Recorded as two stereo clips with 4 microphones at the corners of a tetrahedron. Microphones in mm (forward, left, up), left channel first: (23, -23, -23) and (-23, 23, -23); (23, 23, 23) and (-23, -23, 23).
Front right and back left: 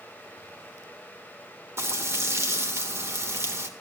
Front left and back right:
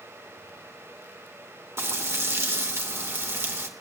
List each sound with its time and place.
1.8 s frying: straight behind, 2 m